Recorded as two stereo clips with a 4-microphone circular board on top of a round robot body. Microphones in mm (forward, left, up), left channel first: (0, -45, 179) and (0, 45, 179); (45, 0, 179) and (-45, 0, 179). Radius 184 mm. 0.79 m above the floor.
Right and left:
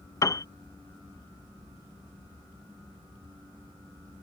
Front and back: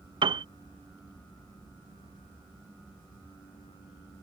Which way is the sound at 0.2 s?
145° right.